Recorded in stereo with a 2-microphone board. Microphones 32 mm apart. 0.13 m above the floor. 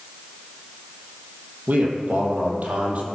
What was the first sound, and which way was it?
A man speaking, 60° right (ahead or behind).